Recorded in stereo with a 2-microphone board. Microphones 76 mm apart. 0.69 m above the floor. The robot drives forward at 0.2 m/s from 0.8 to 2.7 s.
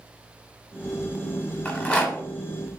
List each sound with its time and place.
1.6 s a rattle: 15° left (ahead or behind), 0.8 m